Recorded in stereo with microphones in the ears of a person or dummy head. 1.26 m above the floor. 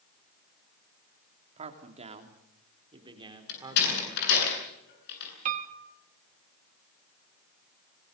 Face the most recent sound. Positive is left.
turn(degrees=-45)  # may be behind; listen again after turning